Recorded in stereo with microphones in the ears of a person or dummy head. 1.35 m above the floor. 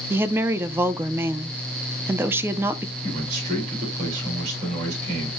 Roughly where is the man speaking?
Right.